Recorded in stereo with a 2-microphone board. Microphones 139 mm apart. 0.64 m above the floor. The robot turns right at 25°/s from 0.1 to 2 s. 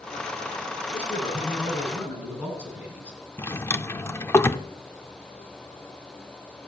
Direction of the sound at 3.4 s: 20° left (ahead or behind).